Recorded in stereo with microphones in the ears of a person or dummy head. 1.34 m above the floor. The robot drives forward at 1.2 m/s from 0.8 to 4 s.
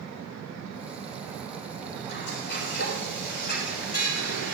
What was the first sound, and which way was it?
Frying, 65° left (ahead or behind).